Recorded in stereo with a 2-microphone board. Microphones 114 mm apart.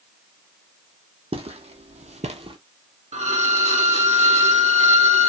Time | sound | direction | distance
1.3 | footsteps | 55° right (ahead or behind) | 0.8 m
3.1 | a violin | 70° right (ahead or behind) | 0.7 m